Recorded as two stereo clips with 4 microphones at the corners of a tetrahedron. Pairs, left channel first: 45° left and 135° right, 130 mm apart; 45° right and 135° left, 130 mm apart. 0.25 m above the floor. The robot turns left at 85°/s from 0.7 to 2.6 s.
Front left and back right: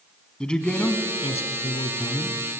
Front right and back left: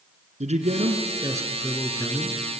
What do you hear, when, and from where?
0.4 s a man speaking: 130° left, 2.5 m; by 2.4 s 15° right, 2.5 m